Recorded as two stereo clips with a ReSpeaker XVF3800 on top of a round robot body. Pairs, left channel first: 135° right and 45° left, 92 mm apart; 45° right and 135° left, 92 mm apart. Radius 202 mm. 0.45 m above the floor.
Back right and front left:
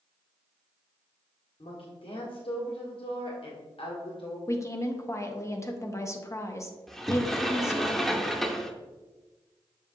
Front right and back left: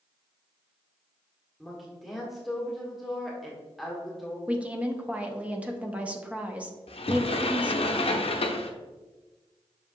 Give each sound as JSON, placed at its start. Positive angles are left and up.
{"t": 1.6, "sound": "a woman speaking", "azimuth_deg": -135, "distance_m": 1.6}
{"t": 4.5, "sound": "a woman speaking", "azimuth_deg": -160, "distance_m": 1.3}
{"t": 6.9, "sound": "a sliding door", "azimuth_deg": -45, "distance_m": 0.8}